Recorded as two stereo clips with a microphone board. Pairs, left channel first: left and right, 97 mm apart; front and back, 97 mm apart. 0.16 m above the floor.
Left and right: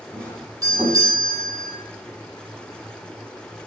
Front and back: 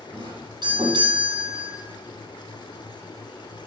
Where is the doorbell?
145° right, 8 m.